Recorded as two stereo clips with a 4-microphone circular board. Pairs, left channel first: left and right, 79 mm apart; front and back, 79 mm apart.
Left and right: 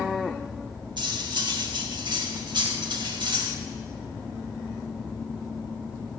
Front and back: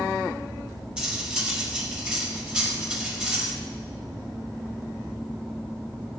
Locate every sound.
1.0 s cutlery clinking: 105° right, 1.7 m